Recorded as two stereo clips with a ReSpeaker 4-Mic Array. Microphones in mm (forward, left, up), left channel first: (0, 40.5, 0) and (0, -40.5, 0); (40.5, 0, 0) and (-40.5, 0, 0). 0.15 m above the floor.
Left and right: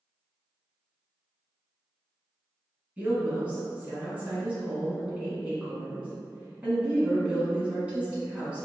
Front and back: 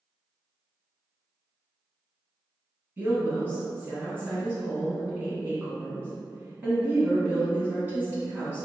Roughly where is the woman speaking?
Behind right.